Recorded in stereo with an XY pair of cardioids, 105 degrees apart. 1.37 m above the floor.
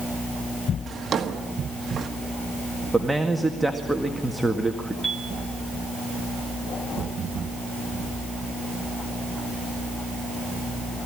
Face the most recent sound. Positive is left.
turn(degrees=5)